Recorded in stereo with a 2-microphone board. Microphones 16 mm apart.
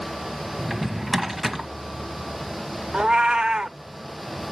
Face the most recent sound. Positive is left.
turn(degrees=-65)  # may be behind; listen again after turning